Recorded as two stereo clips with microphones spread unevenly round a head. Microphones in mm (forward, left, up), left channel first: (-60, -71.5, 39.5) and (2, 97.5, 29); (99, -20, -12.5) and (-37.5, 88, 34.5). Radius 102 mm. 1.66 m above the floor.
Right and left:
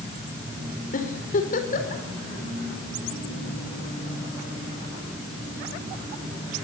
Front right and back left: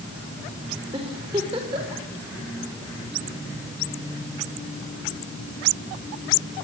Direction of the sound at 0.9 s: 155° right.